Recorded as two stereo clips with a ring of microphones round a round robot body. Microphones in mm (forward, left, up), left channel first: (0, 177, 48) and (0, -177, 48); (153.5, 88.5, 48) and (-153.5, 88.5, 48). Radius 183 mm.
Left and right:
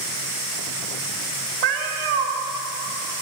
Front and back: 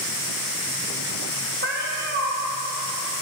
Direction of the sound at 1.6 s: 115° right.